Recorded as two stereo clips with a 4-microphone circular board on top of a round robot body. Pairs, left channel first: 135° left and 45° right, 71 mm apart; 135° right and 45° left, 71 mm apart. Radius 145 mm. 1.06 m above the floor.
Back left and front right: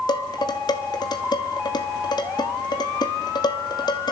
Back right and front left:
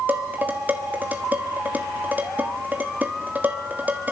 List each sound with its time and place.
0.1 s dishes clattering: 110° left, 1.5 m